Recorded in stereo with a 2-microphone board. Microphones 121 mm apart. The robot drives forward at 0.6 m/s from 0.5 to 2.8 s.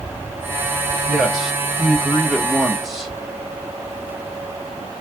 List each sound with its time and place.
1.1 s a man speaking: centre (ahead or behind), 0.9 m